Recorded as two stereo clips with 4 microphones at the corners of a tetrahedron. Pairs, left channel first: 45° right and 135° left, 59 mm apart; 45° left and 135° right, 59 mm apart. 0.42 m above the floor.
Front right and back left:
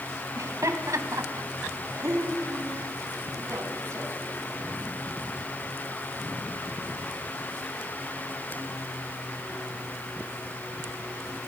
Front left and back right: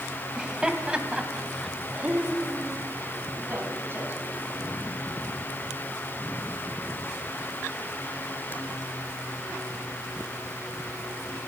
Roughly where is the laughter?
Behind left.